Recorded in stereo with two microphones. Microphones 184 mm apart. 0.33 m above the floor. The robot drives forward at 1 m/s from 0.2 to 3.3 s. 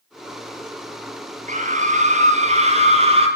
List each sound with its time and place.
1.5 s a scream: 40° right (ahead or behind), 5.5 m; by 3.3 s 30° right (ahead or behind), 7 m